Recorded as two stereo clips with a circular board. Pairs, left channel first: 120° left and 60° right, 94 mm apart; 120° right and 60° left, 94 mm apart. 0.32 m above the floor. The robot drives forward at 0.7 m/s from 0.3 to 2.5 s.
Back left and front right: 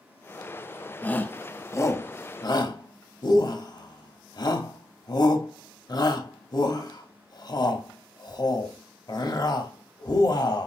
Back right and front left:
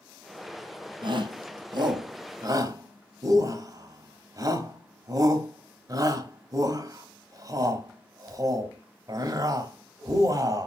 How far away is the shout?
About 1.7 m.